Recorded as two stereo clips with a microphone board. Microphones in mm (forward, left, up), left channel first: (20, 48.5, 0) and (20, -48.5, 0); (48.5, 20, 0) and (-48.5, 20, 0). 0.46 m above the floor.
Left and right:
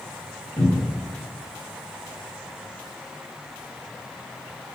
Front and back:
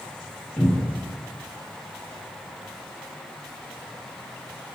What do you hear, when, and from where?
0.6 s a cupboard door: 75° left, 1.3 m